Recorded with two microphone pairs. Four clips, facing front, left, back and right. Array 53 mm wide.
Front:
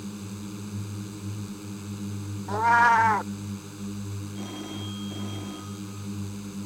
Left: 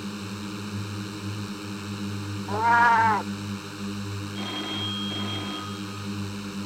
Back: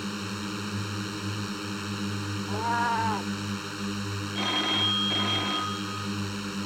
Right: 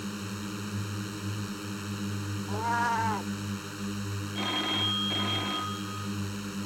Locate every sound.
0.0 s a drone: straight behind
2.5 s a cat meowing: 50° left
4.3 s a phone ringing: 160° right